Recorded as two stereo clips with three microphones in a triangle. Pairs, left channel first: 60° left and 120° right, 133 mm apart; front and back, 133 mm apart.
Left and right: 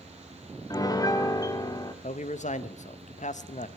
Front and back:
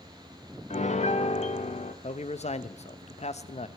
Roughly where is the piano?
Ahead.